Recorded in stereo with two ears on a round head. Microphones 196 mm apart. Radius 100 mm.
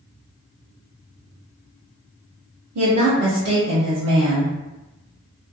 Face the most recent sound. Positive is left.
turn(degrees=-80)